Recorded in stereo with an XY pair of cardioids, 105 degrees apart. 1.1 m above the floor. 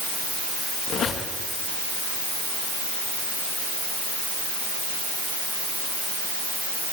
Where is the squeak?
55° left, 7 m.